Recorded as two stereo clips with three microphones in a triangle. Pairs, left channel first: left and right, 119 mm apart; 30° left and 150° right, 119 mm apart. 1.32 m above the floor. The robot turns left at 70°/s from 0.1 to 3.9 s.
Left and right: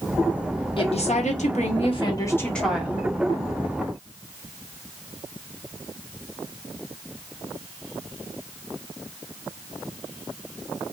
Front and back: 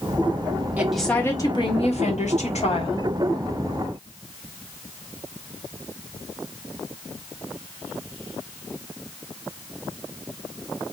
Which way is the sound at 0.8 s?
135° left.